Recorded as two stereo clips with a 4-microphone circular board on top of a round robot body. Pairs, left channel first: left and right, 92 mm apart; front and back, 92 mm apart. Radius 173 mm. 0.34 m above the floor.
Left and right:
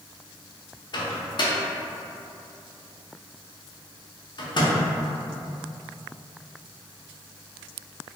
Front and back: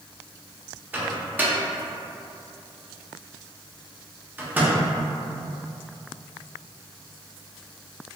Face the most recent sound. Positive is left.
turn(degrees=115)